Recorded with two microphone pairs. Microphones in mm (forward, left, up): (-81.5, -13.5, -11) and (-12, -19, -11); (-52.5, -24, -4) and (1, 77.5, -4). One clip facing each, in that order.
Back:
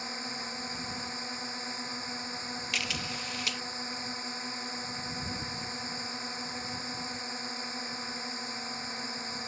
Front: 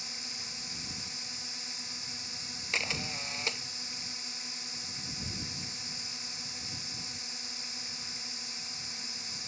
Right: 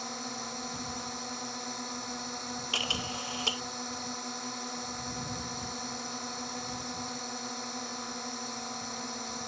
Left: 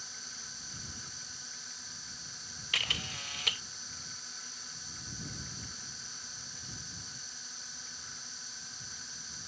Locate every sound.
0.0 s a drone: 140° right
2.7 s a camera shutter: 60° right